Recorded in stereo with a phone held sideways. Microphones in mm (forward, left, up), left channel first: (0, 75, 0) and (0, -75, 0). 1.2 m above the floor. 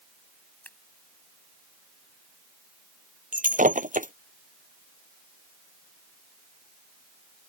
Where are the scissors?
10° left (ahead or behind).